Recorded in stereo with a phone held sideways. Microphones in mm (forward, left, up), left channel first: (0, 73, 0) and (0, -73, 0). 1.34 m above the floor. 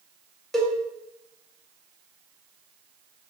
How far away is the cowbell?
About 0.6 m.